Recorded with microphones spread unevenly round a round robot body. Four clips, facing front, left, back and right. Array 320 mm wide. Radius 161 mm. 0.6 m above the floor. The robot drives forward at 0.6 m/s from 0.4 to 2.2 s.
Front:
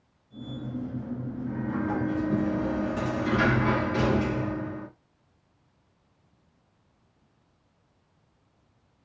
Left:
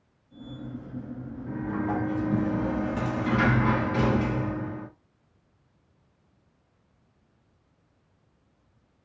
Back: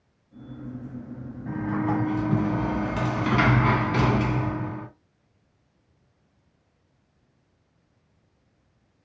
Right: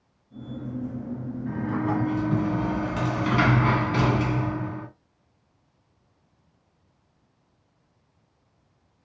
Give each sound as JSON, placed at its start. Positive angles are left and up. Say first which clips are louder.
{"t": 1.5, "sound": "a sliding door", "louder": "right 2 dB, back 4 dB", "azimuth_deg": -135, "distance_m": 1.1}